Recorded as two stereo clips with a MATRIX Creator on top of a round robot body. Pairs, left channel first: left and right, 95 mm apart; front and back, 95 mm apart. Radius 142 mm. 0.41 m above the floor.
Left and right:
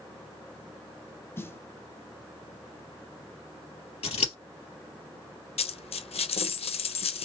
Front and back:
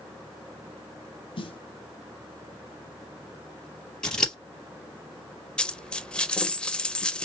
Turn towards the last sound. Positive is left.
turn(degrees=80)